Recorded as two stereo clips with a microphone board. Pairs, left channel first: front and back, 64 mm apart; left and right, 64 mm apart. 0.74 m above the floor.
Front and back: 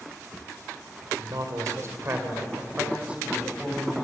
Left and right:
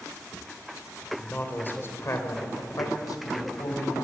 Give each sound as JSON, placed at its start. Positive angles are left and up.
{"t": 1.2, "sound": "a man speaking", "azimuth_deg": 160, "distance_m": 3.0}